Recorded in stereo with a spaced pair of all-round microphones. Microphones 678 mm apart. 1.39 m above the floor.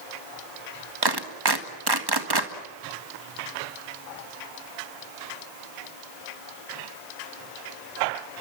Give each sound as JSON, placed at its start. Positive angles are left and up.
{"t": 1.0, "sound": "a clap", "side_deg": -35, "distance_m": 1.8}